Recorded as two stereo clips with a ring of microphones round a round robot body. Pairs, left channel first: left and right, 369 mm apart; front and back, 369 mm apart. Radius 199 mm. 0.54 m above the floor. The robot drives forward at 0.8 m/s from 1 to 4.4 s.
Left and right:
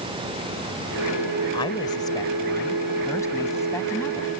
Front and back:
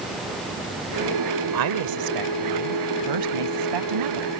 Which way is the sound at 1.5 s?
165° left.